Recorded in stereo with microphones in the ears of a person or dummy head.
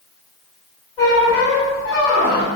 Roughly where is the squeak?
Centre.